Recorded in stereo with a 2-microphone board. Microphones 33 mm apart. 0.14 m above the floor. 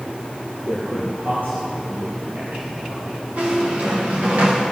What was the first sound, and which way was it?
A man speaking, 65° right (ahead or behind).